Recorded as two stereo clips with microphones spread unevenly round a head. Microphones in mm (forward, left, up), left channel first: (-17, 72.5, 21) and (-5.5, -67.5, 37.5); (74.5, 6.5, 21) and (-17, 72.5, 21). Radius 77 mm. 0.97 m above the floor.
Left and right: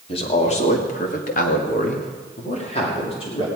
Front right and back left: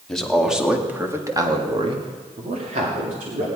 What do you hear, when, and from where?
0.1 s a man speaking: 50° left, 2.5 m; by 3.5 s 145° left, 3 m